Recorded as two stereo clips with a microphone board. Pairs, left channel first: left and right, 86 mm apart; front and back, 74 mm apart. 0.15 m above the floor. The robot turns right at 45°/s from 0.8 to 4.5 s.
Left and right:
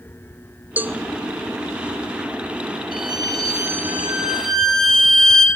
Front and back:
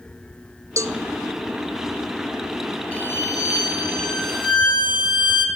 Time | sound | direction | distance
0.8 | a cowbell | 155° right | 0.6 m
2.9 | a violin | 70° right | 4 m